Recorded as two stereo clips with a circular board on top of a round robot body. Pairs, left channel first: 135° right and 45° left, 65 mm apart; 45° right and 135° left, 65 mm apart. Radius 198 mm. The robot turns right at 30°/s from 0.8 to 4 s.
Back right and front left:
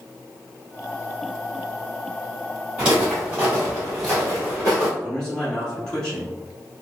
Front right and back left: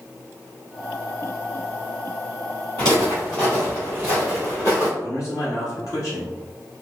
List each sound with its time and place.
2.8 s footsteps: 30° right, 1.3 m; by 4.9 s 100° right, 0.9 m
5.0 s a man speaking: 60° right, 1.6 m